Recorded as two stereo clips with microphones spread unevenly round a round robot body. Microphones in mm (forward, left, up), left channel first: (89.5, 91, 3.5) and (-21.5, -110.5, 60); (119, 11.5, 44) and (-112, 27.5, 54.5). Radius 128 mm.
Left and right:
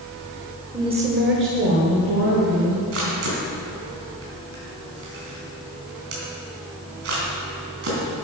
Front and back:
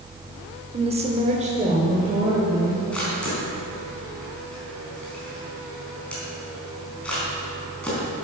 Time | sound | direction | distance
0.7 | a woman speaking | 150° left | 1.3 m
2.9 | a camera shutter | 90° right | 3.5 m